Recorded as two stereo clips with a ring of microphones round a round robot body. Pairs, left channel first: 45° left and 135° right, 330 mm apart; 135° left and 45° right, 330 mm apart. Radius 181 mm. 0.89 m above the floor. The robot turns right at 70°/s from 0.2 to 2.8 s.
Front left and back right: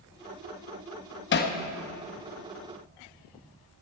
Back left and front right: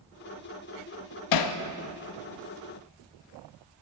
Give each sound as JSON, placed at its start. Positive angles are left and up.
{"t": 1.3, "sound": "hammering", "azimuth_deg": 105, "distance_m": 0.7}